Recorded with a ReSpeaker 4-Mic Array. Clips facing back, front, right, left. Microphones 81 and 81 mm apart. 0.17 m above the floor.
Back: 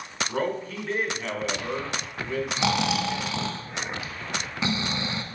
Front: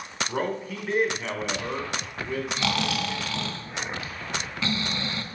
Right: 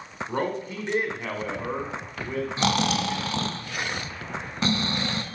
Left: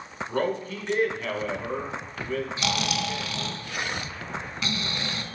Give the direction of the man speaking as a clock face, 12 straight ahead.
2 o'clock.